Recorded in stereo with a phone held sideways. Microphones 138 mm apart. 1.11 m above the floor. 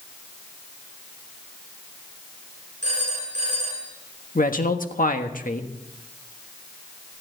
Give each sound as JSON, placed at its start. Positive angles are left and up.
{"t": 2.8, "sound": "a phone ringing", "side_deg": -55, "distance_m": 9.0}
{"t": 4.3, "sound": "a man speaking", "side_deg": 80, "distance_m": 1.5}